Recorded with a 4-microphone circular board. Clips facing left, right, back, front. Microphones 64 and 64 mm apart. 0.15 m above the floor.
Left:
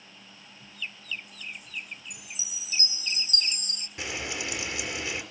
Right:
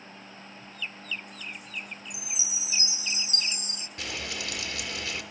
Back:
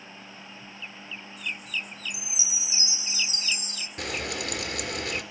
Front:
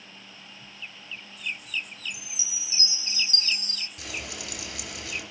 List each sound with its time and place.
2.1 s a chime: 110° left, 0.5 m
4.0 s frying: 155° left, 2.5 m